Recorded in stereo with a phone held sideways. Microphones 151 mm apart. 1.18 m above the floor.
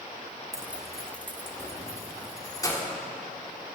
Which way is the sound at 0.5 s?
25° right (ahead or behind).